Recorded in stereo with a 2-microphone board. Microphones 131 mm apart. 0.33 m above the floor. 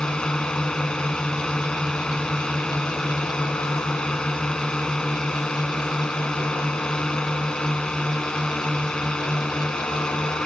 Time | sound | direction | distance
0.0 | a drone | 5° left (ahead or behind) | ?